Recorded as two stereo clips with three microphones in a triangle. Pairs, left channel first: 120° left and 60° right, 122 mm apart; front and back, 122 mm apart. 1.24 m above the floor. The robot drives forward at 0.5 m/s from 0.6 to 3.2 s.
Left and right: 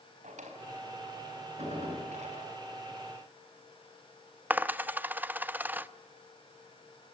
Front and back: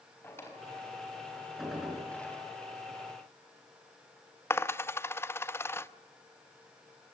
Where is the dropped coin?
15° right, 0.6 m.